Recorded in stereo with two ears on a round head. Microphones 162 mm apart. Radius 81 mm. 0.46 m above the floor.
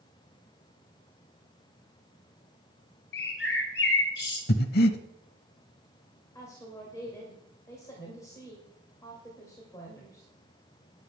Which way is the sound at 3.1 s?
70° left (ahead or behind).